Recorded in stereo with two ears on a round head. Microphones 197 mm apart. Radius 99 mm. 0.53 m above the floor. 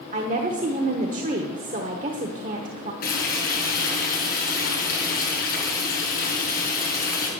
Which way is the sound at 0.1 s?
40° right (ahead or behind).